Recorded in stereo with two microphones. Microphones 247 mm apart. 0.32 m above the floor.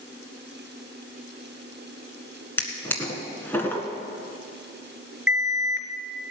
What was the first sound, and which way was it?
A drawer, 10° left (ahead or behind).